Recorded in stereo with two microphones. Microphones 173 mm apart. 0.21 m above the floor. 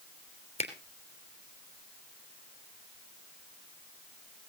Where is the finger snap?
40° left (ahead or behind), 3 m.